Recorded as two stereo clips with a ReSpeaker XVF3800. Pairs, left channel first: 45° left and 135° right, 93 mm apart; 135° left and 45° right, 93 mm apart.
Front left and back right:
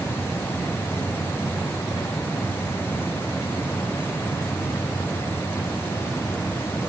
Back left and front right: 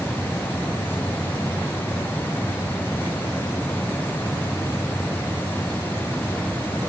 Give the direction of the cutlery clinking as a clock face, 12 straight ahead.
No cutlery clinking in this recording.